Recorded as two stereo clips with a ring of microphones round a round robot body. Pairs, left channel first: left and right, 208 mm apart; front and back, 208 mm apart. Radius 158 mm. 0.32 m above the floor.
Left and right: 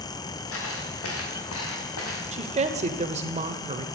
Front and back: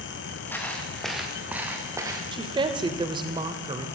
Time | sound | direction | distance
0.5 | footsteps | 80° left | 5 m
2.3 | a woman speaking | 125° right | 1.1 m